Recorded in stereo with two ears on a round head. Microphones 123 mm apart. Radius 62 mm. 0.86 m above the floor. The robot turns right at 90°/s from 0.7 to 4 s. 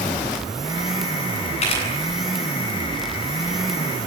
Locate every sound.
1.6 s a camera shutter: 50° left (ahead or behind), 10 m; by 1.8 s 30° left (ahead or behind), 10 m